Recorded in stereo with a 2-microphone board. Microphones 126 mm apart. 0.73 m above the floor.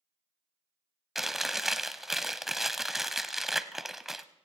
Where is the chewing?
5° right (ahead or behind), 0.6 m.